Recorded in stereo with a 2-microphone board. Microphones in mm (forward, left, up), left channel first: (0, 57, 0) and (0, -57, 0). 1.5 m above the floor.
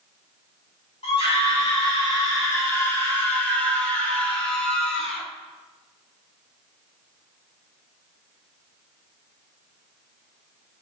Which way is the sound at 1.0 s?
60° left (ahead or behind).